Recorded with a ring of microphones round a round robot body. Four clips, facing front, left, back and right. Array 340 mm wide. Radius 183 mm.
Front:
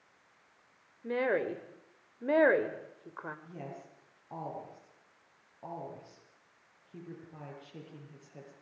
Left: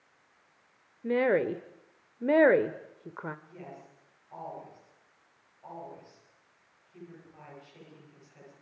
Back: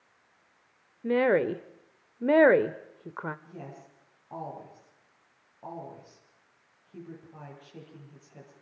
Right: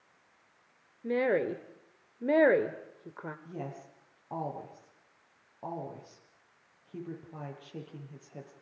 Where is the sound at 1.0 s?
160° left, 1.1 m.